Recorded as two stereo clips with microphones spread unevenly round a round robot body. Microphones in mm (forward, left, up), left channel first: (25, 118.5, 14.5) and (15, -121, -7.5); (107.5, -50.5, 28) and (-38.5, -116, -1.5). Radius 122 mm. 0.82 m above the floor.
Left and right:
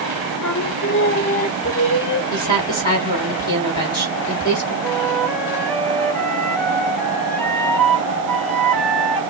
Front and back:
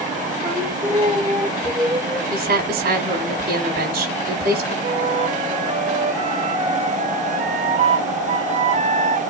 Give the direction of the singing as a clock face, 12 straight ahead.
8 o'clock.